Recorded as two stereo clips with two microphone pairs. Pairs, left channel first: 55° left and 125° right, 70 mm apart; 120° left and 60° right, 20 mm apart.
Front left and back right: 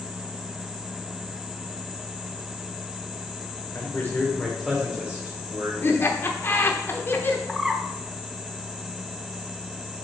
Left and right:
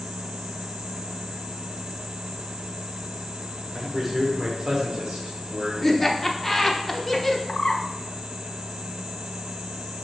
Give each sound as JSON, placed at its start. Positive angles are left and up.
{"t": 3.8, "sound": "a man speaking", "azimuth_deg": 15, "distance_m": 1.4}
{"t": 5.8, "sound": "laughter", "azimuth_deg": 35, "distance_m": 0.9}
{"t": 7.5, "sound": "a bird", "azimuth_deg": 150, "distance_m": 0.6}